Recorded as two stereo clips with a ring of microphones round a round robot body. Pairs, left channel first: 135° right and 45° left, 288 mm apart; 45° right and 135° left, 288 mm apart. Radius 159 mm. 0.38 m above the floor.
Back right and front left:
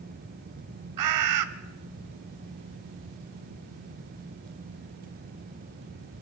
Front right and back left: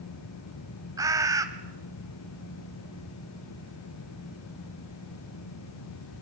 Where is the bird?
55° left, 1.1 m.